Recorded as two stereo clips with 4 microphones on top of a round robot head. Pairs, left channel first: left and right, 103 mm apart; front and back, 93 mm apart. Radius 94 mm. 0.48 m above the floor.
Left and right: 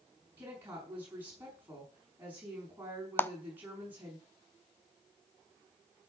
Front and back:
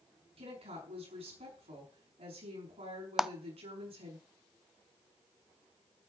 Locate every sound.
0.4 s a woman speaking: 165° right, 6 m
3.2 s a clap: 105° left, 0.8 m